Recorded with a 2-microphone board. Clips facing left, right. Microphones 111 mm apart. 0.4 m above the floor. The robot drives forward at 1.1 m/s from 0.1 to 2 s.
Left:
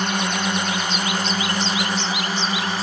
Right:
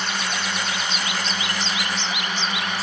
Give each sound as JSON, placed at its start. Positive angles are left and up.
{"t": 0.0, "sound": "a drone", "side_deg": 50}